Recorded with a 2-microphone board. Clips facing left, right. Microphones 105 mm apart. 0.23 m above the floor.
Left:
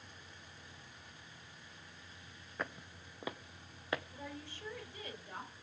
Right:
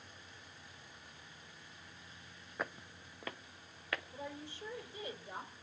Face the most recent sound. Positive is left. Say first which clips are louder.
# right 2 dB
turn(degrees=-20)  # may be behind; listen again after turning